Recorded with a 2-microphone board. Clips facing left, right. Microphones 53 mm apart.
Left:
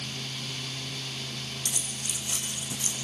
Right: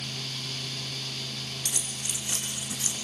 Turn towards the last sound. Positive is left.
turn(degrees=-80)